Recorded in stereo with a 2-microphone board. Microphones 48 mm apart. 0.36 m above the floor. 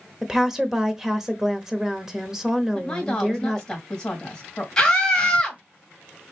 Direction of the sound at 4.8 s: 15° left (ahead or behind).